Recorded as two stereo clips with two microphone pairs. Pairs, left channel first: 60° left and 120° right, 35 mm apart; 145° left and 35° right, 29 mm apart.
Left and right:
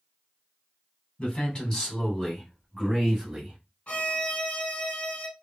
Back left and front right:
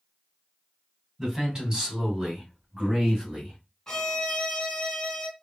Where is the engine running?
I don't hear an engine running.